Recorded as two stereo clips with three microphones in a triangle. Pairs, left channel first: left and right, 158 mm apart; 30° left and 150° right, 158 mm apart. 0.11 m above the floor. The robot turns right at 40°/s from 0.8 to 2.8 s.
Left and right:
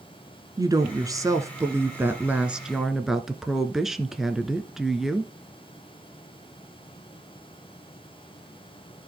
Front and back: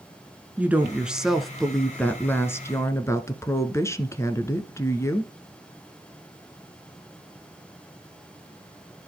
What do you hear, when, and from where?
0.6 s a woman speaking: 85° right, 1.1 m; by 5.3 s 5° right, 1.1 m